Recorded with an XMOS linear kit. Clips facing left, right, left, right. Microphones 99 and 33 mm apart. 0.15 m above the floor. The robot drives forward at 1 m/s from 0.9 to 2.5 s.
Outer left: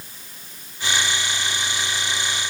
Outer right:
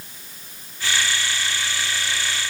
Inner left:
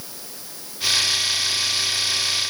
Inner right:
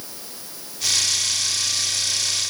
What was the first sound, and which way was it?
Only background noise.